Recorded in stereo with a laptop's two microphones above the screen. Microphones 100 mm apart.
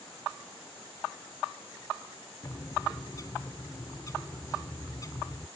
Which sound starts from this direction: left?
A bird, at 2.4 s.